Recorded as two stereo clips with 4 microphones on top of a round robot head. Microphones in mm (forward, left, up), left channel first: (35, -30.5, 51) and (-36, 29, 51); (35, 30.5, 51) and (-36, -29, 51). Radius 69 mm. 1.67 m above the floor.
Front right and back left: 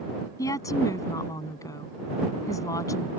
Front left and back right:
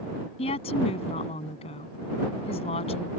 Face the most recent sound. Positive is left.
turn(degrees=15)